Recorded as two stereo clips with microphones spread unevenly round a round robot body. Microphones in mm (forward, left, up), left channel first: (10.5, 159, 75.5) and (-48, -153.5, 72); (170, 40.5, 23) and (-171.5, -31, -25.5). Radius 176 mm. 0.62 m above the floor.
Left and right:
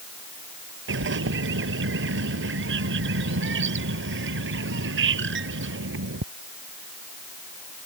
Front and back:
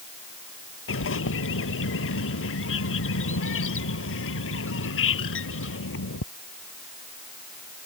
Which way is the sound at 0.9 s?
45° right.